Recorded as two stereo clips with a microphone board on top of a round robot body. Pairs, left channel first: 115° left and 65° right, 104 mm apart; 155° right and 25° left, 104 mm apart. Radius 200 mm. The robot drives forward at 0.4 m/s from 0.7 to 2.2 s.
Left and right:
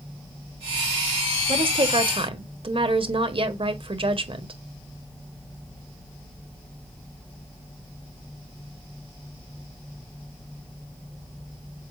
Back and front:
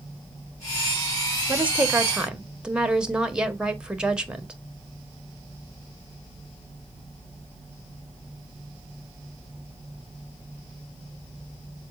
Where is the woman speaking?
50° right, 1.8 m; by 4.5 s 60° right, 1.6 m.